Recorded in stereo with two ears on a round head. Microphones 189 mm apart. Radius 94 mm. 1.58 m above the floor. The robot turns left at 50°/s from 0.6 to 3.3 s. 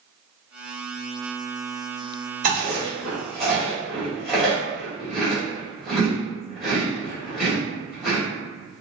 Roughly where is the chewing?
Right.